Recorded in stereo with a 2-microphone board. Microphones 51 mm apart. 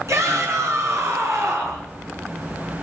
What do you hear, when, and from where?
0.1 s a shout: 75° right (ahead or behind), 6 m